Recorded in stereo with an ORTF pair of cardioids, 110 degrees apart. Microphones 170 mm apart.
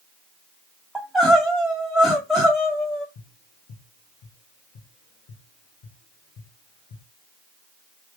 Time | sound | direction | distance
0.9 | crying | straight ahead | 1.6 m
3.1 | tapping | 65° left | 1.1 m